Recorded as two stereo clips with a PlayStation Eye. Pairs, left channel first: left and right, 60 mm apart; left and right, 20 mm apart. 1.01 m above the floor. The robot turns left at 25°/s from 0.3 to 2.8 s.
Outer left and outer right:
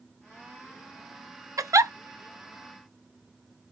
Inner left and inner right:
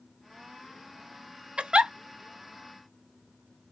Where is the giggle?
65° right (ahead or behind), 0.5 m; by 1.9 s 60° right (ahead or behind), 0.5 m.